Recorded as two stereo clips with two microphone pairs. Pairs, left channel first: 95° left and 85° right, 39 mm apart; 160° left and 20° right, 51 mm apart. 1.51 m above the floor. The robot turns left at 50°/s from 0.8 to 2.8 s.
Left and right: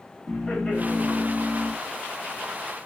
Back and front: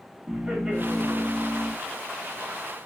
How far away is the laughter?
About 1.4 m.